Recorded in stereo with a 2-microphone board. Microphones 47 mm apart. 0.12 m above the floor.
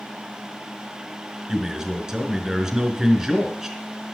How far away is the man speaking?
About 1.8 m.